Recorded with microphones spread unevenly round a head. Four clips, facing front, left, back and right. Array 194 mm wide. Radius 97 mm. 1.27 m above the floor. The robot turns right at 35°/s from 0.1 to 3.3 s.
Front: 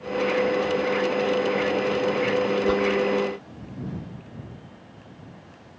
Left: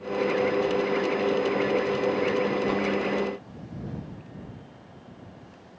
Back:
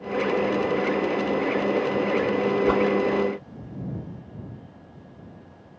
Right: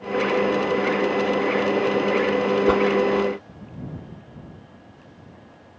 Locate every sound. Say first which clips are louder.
2.7 s a whoosh: right 8 dB, back 3 dB; 95° right; by 2.9 s 90° right